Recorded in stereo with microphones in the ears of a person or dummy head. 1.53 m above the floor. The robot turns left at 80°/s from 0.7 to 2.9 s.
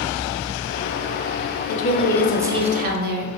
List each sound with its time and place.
1.7 s a woman speaking: 50° left, 0.8 m; by 3.3 s 45° right, 0.8 m